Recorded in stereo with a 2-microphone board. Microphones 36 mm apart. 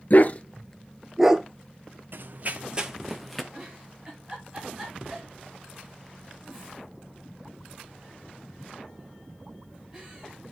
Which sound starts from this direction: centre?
A giggle, at 3.5 s.